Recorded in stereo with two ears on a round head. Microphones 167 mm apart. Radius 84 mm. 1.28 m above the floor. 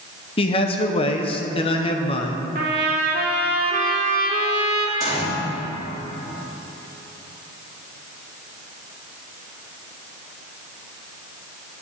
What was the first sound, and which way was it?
A man speaking, 30° left (ahead or behind).